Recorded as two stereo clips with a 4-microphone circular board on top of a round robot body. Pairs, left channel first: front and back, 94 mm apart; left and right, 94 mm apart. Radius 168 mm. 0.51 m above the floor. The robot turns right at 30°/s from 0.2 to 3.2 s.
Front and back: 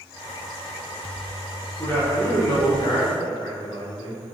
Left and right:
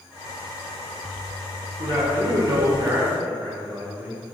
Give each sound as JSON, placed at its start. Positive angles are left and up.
{"t": 1.8, "sound": "a man speaking", "azimuth_deg": -70, "distance_m": 1.8}